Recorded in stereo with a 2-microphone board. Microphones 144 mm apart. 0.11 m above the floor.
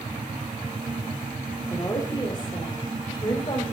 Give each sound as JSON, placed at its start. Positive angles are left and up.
{"t": 1.7, "sound": "a woman speaking", "side_deg": 25, "distance_m": 4.0}